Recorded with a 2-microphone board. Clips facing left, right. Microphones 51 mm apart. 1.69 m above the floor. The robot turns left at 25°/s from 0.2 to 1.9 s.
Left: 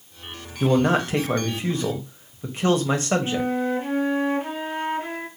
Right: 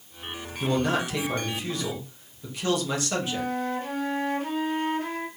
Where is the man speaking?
115° left, 0.7 m; by 3.5 s 85° left, 0.7 m.